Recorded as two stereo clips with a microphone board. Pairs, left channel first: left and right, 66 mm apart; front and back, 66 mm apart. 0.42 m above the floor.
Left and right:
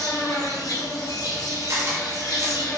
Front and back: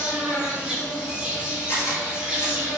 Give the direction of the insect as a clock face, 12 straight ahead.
9 o'clock.